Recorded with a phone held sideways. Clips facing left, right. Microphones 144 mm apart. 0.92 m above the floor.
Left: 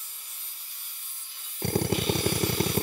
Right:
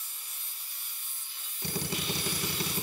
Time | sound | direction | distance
1.6 | a drill | 50° left (ahead or behind) | 1.0 m